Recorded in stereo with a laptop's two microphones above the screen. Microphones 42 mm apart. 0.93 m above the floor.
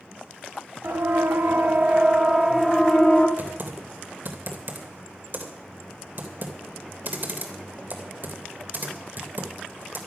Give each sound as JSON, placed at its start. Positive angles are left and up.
{"t": 0.8, "sound": "a siren", "side_deg": -65, "distance_m": 2.0}
{"t": 3.4, "sound": "typing on a keyboard", "side_deg": -55, "distance_m": 2.5}